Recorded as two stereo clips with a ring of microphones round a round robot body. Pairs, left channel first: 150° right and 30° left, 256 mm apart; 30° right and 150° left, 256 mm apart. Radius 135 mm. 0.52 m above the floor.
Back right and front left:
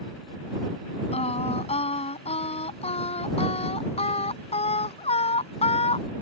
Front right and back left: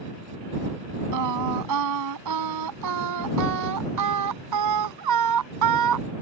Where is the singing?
145° left.